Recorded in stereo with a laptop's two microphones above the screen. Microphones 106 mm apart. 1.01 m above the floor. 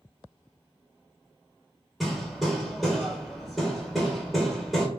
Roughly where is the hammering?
Centre.